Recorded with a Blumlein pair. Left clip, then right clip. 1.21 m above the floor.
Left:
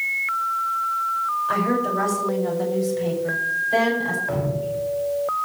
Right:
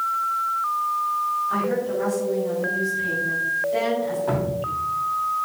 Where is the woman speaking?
50° left, 5.5 m; by 4.2 s 60° left, 9 m.